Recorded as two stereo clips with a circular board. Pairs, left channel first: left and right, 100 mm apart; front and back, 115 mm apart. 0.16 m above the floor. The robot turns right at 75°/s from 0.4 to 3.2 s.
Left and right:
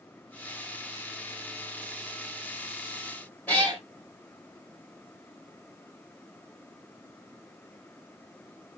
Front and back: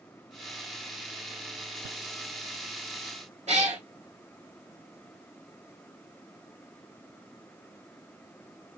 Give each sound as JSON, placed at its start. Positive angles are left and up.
{"t": 3.5, "sound": "a cat meowing", "azimuth_deg": 160, "distance_m": 1.7}